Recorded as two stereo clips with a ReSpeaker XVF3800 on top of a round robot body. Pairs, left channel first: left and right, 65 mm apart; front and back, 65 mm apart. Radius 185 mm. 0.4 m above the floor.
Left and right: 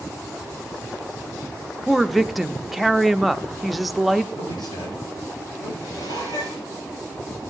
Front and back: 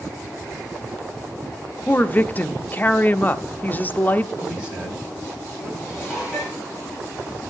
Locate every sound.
1.9 s a woman speaking: straight ahead, 0.9 m
4.4 s a man speaking: 100° left, 4.5 m
5.8 s dishes clattering: 95° left, 9.5 m